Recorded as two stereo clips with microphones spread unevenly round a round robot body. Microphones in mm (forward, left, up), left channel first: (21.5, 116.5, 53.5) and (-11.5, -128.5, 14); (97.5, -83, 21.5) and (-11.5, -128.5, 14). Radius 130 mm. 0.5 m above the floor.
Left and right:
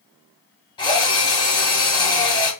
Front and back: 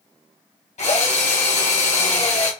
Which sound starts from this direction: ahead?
A drill, at 0.8 s.